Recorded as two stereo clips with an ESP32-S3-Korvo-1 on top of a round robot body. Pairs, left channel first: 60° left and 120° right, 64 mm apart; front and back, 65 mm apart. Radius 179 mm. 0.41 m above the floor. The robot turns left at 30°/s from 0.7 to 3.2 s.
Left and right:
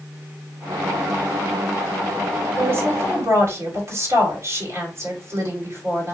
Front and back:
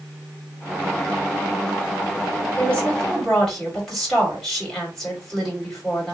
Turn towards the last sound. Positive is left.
turn(degrees=-85)